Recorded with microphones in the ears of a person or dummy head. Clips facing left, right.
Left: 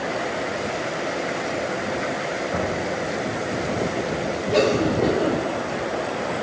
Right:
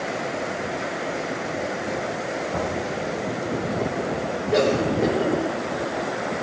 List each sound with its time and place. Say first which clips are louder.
2.5 s knocking: left 2 dB; 15° left (ahead or behind), 5 m
4.5 s a cough: left 1 dB; centre (ahead or behind), 7 m